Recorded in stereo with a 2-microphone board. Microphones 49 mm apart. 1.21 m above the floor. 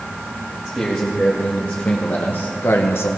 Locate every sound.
0.7 s a man speaking: 15° left (ahead or behind), 1.9 m; by 3.1 s 65° left (ahead or behind), 0.9 m